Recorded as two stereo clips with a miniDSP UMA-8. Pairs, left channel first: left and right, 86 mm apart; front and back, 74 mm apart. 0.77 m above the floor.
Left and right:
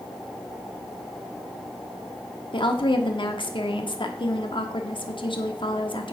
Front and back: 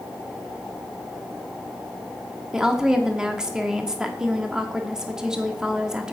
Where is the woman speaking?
100° left, 1.4 m.